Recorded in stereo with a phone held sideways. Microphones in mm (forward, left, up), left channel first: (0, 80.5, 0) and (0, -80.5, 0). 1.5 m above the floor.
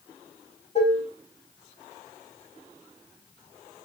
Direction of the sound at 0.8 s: 40° left (ahead or behind).